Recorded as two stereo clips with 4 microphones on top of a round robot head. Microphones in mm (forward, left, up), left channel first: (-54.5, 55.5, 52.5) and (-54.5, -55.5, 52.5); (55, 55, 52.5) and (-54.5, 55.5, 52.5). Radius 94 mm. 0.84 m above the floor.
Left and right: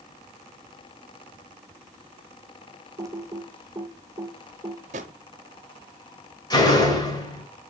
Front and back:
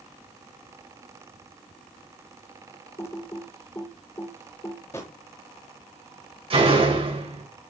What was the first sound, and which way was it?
Typing on a keyboard, 50° right.